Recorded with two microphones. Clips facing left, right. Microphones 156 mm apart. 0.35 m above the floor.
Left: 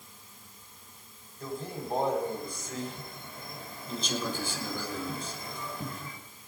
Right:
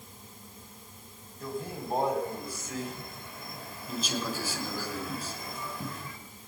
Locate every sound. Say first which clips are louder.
1.4 s a man speaking: right 1 dB; 5° right (ahead or behind), 2.5 m